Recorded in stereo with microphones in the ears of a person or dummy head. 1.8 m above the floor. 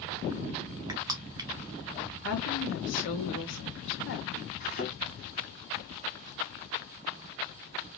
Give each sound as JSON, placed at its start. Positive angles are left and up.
{"t": 0.9, "sound": "crushing", "side_deg": -15, "distance_m": 0.7}
{"t": 2.2, "sound": "a woman speaking", "side_deg": 65, "distance_m": 1.5}
{"t": 4.6, "sound": "a thud", "side_deg": 45, "distance_m": 2.0}